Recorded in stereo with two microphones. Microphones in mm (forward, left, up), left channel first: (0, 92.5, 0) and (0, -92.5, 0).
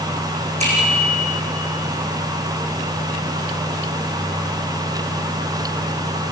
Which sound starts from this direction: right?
A bicycle bell, at 0.6 s.